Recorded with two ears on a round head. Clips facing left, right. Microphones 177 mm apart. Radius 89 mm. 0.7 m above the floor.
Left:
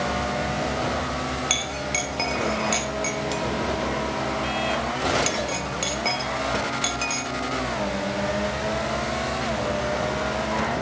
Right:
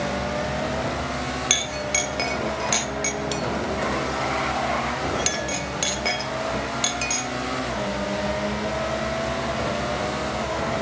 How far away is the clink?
About 1.0 m.